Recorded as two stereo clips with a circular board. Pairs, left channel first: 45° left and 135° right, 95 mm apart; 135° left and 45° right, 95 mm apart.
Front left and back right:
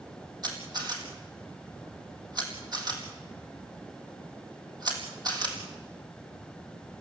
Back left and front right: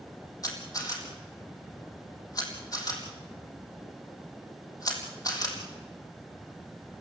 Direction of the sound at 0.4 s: 175° right.